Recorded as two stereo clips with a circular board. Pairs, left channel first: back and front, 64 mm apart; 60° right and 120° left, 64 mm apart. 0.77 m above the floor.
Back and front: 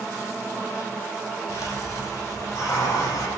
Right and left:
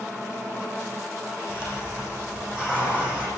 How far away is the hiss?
About 7 m.